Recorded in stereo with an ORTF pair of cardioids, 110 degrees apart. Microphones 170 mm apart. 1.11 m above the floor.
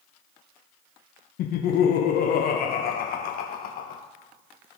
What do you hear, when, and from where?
1.4 s laughter: 60° left, 0.5 m